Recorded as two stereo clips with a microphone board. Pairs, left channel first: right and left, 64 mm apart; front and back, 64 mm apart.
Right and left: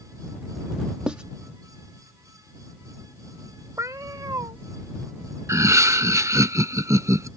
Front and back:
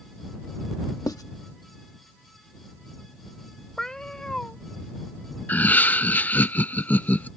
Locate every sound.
1.1 s writing: 15° left
3.8 s a cat meowing: 80° left
5.5 s laughter: 60° left